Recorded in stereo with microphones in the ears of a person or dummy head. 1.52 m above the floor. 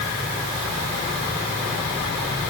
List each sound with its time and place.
Only background noise.